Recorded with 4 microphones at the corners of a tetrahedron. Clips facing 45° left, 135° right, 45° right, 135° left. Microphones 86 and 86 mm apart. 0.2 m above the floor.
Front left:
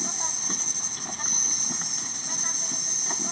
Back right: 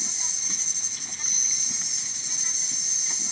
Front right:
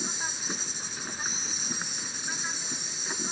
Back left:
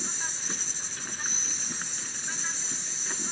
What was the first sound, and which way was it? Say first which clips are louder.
An insect: front left 8 dB, front right 2 dB; 25° left.